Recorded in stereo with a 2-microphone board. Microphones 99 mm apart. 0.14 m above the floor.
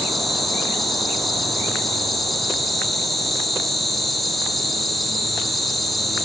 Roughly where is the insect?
Centre.